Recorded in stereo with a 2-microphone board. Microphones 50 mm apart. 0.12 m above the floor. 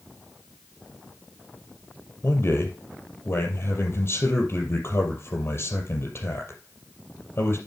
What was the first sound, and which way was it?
A man speaking, 50° left (ahead or behind).